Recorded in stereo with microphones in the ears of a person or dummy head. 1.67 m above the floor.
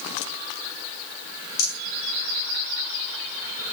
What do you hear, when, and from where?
1.6 s a rattle: 25° left (ahead or behind), 5 m